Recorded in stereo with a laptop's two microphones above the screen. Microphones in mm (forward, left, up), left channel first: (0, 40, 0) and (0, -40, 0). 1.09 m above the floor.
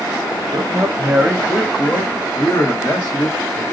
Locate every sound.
0.5 s a man speaking: 50° right (ahead or behind), 0.6 m; by 3.6 s 45° left (ahead or behind), 1.5 m